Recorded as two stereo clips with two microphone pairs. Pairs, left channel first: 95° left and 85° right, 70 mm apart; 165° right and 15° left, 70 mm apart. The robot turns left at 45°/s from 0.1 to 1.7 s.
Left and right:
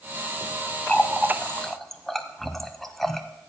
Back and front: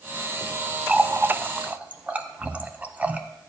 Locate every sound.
0.9 s a running tap: 50° left, 0.7 m; by 3.2 s 15° left, 0.7 m